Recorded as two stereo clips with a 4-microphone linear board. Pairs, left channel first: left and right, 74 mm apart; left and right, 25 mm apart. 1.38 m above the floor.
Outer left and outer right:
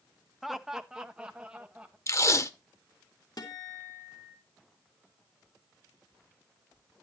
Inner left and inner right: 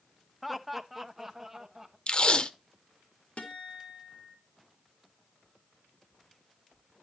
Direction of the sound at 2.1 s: 40° left (ahead or behind).